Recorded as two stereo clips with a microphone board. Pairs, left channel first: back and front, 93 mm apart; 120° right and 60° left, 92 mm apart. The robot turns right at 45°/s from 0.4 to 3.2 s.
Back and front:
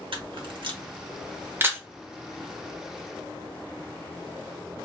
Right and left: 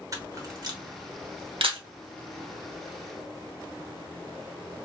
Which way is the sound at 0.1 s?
10° left.